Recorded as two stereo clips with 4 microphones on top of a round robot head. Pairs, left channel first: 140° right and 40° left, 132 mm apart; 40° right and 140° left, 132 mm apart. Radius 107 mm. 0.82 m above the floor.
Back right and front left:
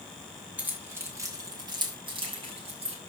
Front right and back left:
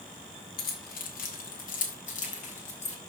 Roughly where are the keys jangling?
Ahead right.